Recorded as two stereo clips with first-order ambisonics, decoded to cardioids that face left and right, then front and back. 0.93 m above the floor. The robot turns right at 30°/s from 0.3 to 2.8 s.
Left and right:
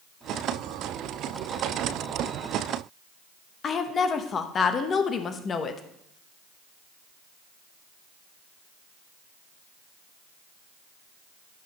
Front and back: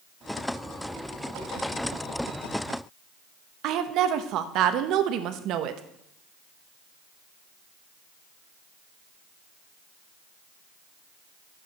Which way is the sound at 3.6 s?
150° left.